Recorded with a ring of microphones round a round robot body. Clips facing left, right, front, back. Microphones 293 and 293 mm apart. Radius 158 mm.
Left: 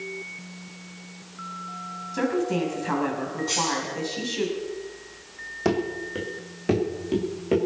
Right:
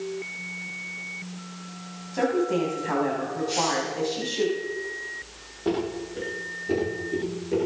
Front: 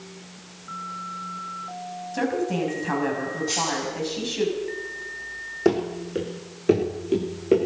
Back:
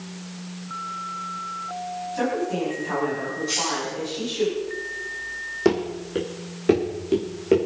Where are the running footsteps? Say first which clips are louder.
Left 1 dB, even; 95° left, 3.5 m; by 7.6 s 90° left, 5.5 m.